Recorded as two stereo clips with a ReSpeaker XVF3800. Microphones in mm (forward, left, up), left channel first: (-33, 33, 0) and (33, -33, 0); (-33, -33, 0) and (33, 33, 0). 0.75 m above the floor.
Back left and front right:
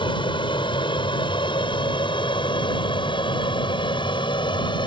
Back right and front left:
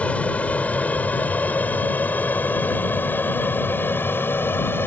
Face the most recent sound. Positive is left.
turn(degrees=160)